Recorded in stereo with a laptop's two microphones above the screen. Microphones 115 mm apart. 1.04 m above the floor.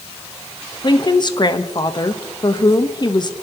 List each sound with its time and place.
0.8 s a woman speaking: 40° left (ahead or behind), 1.0 m